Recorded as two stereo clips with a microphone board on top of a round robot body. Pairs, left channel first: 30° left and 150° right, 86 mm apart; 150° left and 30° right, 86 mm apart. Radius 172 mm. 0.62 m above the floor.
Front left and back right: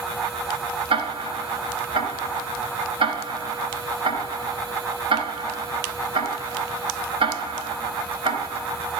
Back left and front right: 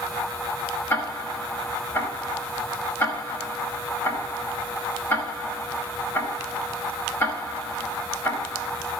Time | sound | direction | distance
0.9 | ticking | 150° right | 4 m